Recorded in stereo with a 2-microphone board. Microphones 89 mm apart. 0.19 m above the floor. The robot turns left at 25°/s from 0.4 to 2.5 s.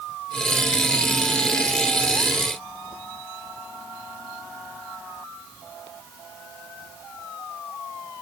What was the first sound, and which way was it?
Only background noise.